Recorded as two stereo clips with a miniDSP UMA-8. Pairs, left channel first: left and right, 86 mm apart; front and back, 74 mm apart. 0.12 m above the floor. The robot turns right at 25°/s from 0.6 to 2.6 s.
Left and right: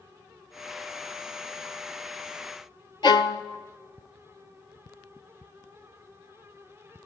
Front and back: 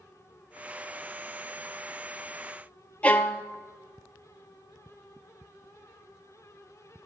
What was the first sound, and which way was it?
A violin, 70° left.